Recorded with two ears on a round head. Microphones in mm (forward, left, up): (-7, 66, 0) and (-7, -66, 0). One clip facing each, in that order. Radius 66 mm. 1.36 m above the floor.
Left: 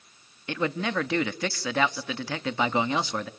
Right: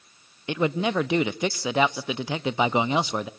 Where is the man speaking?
15° right (ahead or behind), 0.6 m.